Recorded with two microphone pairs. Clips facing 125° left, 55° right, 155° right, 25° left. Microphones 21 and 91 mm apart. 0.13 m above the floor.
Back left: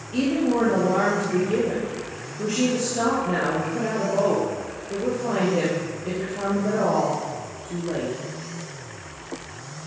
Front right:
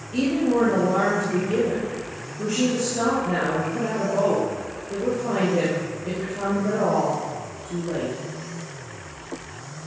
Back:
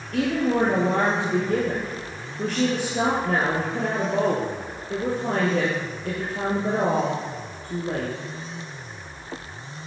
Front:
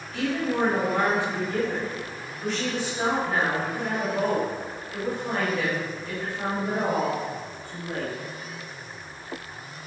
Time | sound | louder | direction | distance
0.1 | a woman speaking | front right 1 dB, back 4 dB | 160° right | 3 m